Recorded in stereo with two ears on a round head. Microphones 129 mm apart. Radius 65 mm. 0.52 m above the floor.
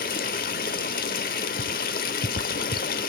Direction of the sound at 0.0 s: 65° left (ahead or behind).